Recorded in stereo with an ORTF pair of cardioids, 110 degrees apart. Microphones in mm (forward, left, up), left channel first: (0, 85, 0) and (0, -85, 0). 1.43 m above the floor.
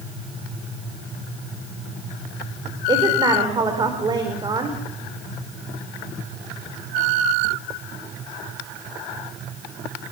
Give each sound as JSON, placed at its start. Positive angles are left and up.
{"t": 2.9, "sound": "a woman speaking", "azimuth_deg": -25, "distance_m": 4.5}